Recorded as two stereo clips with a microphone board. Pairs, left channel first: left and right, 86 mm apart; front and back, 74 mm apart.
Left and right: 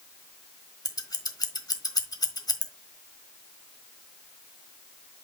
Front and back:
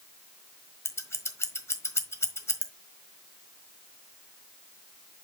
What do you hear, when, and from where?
0.8 s scissors: 50° left, 1.3 m